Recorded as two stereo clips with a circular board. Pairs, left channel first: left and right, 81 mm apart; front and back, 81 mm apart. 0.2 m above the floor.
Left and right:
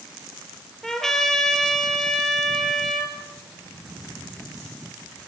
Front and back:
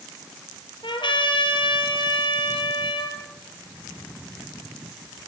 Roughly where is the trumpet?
Ahead.